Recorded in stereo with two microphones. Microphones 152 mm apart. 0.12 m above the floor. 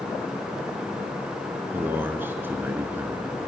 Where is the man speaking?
15° right (ahead or behind), 1.1 m.